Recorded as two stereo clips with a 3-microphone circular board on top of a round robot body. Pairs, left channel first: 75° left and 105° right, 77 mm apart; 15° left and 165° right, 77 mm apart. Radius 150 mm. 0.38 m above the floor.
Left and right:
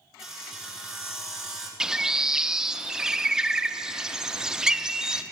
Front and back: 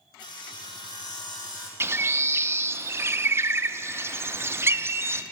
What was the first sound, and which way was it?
Sawing, 20° right.